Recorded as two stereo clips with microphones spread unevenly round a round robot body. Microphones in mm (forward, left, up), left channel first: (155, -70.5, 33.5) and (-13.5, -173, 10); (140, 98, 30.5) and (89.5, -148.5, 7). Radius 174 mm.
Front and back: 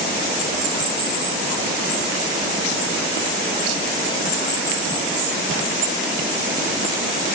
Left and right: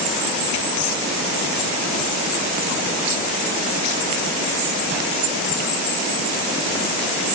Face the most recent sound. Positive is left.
No sound to turn to.